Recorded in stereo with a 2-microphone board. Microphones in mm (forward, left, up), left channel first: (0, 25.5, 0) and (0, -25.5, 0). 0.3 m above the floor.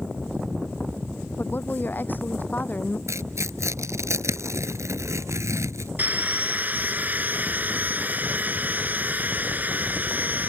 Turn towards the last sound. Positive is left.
turn(degrees=-35)  # may be behind; listen again after turning